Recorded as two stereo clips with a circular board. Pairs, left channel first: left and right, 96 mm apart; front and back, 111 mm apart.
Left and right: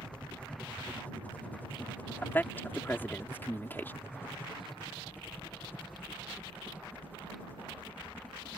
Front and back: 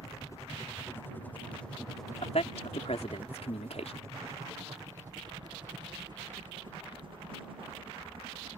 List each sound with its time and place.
0.0 s a helicopter: 20° left; by 8.6 s 160° left
2.2 s a man speaking: 20° left